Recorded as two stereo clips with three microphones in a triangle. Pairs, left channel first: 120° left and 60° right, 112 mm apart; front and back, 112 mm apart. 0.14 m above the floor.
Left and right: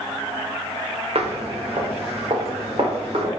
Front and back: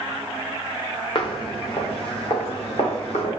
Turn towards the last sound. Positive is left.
turn(degrees=-20)